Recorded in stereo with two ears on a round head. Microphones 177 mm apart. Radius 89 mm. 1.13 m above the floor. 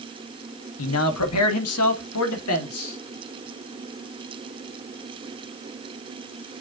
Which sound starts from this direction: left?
A man speaking, at 0.8 s.